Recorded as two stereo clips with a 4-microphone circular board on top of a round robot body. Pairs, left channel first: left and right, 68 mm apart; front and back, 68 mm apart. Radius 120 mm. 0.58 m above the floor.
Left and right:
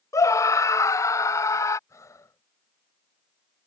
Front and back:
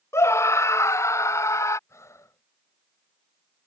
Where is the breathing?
45° left.